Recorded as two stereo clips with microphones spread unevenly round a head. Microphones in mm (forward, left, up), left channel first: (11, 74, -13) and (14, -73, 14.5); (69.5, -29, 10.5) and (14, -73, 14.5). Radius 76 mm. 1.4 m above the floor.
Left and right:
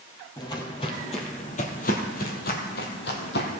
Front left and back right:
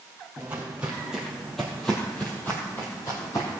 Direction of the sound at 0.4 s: 160° left.